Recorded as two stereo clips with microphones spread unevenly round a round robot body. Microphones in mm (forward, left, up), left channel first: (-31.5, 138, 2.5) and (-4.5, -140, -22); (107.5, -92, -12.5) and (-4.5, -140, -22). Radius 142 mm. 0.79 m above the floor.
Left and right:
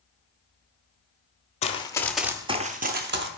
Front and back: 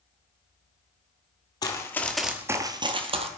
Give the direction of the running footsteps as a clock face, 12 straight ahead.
10 o'clock.